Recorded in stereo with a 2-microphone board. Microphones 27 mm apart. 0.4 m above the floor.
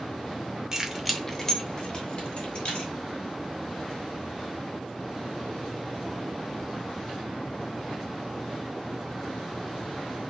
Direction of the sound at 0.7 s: 20° right (ahead or behind).